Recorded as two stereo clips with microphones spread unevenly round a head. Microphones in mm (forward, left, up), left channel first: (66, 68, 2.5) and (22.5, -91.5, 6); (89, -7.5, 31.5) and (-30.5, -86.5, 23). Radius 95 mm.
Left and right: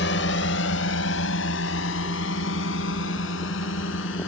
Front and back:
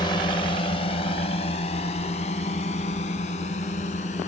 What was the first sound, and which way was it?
A drone, 100° left.